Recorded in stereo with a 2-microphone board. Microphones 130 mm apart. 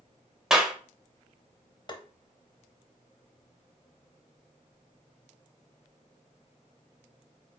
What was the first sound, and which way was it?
A clap, 5° right (ahead or behind).